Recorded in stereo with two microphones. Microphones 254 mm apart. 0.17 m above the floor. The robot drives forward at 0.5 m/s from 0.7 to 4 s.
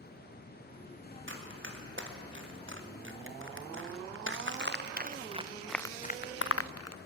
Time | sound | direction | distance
1.3 | running footsteps | 50° right (ahead or behind) | 4.5 m